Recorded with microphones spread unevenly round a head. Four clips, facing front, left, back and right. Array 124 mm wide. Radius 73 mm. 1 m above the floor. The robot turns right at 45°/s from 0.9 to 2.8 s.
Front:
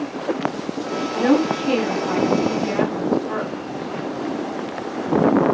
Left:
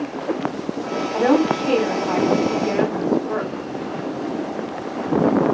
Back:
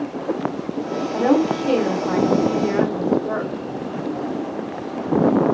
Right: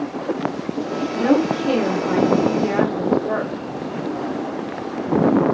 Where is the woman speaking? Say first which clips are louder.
Left 1 dB, even; 145° left, 2.5 m; by 3.5 s 140° right, 2.5 m.